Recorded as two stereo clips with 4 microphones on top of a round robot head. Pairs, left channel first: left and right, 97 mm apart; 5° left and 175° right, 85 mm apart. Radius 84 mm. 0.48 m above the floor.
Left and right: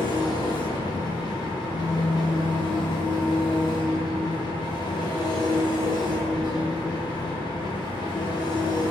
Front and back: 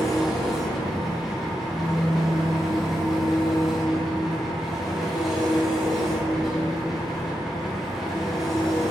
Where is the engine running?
100° left, 0.7 m.